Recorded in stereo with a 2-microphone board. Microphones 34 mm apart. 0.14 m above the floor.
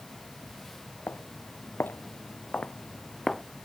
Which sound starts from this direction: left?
Footsteps, at 1.1 s.